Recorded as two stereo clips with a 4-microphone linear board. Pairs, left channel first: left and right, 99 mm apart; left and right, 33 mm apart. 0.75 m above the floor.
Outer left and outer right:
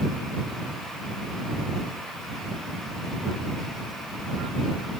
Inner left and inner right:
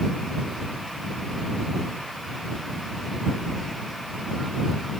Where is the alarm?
I don't hear an alarm.